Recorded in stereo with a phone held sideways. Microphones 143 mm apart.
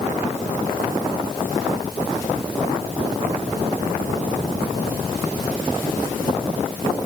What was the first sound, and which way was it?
Only background noise.